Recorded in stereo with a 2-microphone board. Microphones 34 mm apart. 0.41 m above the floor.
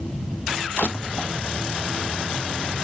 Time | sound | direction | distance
0.8 | crushing | 50° left (ahead or behind) | ?